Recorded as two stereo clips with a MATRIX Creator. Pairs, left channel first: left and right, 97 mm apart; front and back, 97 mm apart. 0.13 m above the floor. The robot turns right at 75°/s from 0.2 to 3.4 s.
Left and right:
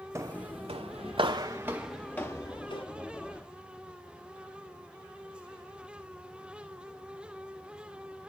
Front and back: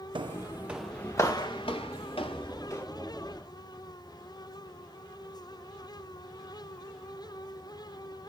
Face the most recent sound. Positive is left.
turn(degrees=110)